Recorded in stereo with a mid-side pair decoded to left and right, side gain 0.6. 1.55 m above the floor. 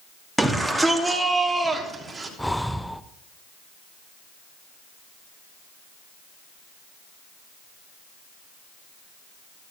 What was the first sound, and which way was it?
A shout, 5° right.